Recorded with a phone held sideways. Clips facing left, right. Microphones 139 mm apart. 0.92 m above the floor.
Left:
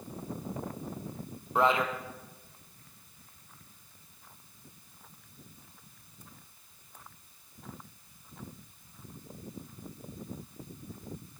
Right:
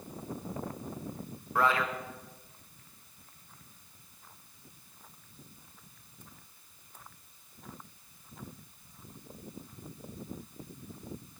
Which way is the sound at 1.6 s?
20° left (ahead or behind).